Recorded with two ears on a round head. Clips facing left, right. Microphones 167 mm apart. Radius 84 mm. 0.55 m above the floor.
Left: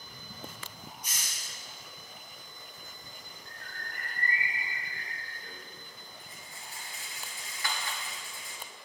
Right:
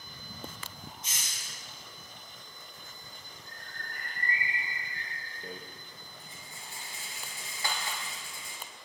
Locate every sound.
1.0 s a hiss: 25° right (ahead or behind), 3.5 m
3.5 s a bird: 35° right (ahead or behind), 3 m
5.4 s a rattle: 25° right (ahead or behind), 3 m